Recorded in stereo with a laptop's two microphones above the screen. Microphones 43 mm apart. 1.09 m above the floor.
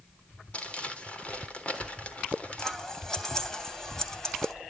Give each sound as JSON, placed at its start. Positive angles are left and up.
{"t": 0.5, "sound": "crumpling", "side_deg": 30, "distance_m": 3.5}
{"t": 2.6, "sound": "scissors", "side_deg": 15, "distance_m": 3.0}